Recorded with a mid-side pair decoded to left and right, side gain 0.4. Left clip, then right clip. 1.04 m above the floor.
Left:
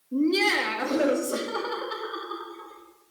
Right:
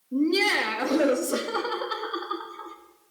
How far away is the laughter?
About 1.8 m.